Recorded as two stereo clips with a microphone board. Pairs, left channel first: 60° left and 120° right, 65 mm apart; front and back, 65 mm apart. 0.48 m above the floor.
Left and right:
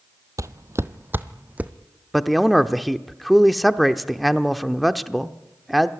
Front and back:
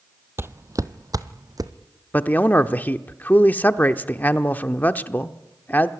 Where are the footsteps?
135° right, 0.7 m; by 1.7 s 170° left, 1.3 m.